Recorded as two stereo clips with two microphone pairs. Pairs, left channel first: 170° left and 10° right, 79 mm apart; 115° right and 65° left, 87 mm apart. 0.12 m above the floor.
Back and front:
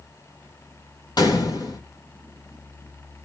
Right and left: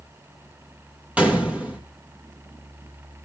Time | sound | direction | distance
1.2 | a gunshot | 145° left | 3 m